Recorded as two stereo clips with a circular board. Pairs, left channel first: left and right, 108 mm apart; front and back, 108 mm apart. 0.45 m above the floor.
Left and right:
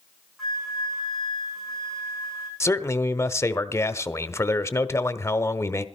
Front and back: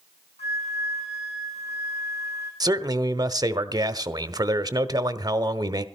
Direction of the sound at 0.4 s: Straight ahead.